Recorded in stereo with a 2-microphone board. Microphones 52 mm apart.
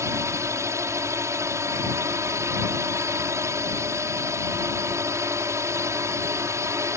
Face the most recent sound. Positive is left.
turn(degrees=-65)  # may be behind; listen again after turning